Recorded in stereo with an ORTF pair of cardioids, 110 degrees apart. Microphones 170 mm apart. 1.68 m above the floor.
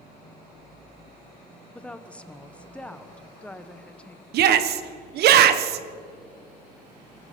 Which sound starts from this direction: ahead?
A woman speaking, at 1.8 s.